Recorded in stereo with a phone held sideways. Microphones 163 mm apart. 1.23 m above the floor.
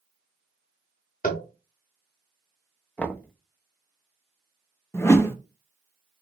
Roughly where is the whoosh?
Centre.